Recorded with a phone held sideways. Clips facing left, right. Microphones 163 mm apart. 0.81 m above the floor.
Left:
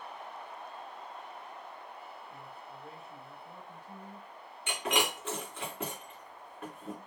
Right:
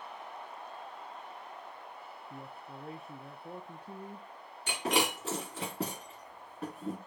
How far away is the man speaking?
About 0.8 m.